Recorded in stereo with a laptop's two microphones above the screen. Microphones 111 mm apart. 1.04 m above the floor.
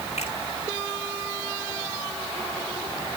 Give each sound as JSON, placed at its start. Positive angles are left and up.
{"t": 0.2, "sound": "a finger snap", "side_deg": 80, "distance_m": 6.5}